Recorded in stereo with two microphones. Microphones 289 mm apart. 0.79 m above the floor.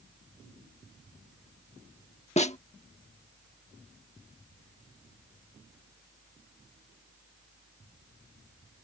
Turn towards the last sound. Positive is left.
turn(degrees=25)  # may be behind; listen again after turning